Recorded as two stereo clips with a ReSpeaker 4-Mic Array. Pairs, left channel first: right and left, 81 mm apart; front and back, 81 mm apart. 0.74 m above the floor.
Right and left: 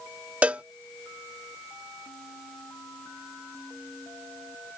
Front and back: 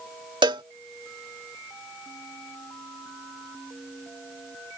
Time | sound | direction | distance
0.4 | a cowbell | 165° left | ?